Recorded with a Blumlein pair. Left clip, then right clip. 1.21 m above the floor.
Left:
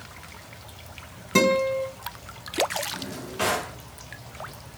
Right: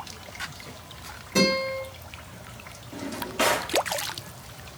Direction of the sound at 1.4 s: 50° left.